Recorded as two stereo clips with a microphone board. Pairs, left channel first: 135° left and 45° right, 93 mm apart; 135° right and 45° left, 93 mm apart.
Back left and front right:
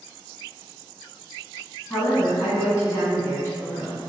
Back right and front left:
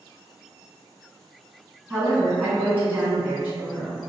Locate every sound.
1.9 s a woman speaking: 110° left, 1.8 m